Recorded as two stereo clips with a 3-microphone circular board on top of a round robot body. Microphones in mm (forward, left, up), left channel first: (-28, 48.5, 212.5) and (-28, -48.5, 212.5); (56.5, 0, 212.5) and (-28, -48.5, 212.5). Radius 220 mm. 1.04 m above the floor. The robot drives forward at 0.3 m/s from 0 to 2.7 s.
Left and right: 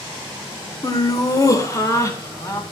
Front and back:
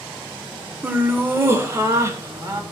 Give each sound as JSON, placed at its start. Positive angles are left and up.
{"t": 0.8, "sound": "laughter", "azimuth_deg": 140, "distance_m": 1.5}